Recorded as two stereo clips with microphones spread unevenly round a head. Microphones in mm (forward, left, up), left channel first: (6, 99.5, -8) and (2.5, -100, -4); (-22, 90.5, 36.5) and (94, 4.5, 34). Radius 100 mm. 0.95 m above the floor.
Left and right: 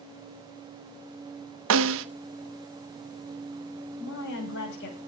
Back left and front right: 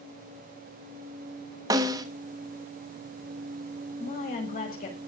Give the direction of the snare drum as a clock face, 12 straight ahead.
3 o'clock.